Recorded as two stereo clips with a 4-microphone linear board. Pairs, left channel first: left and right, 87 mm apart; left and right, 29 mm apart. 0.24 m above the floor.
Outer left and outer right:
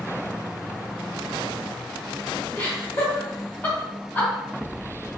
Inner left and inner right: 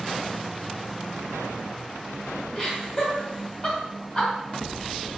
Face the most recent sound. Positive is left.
turn(degrees=25)  # may be behind; listen again after turning